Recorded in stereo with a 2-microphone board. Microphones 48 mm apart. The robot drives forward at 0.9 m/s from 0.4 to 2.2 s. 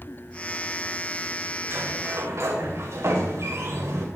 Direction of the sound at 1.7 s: 55° right (ahead or behind).